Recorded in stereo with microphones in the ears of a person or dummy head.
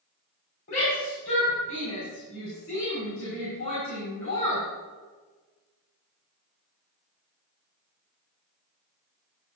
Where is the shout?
50° left (ahead or behind), 3.5 m.